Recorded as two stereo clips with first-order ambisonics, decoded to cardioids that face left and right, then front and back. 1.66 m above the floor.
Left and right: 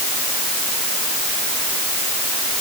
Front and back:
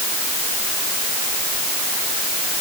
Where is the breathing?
No breathing in this recording.